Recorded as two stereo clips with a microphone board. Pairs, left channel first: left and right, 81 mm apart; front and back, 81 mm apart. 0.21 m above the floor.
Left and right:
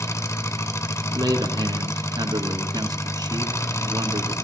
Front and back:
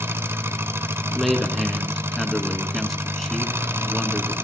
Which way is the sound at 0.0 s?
130° left.